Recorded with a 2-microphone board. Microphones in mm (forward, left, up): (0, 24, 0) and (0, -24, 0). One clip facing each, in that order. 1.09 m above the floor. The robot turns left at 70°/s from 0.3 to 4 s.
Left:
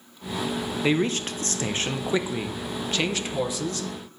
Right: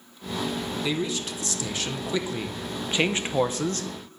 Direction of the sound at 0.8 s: 125° left.